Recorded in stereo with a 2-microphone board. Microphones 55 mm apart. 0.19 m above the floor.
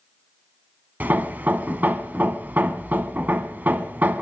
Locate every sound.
1.0 s hammering: 35° right (ahead or behind), 0.7 m